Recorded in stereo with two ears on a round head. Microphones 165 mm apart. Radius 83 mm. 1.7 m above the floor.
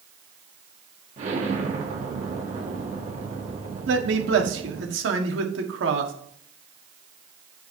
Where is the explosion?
40° right (ahead or behind), 1.5 m.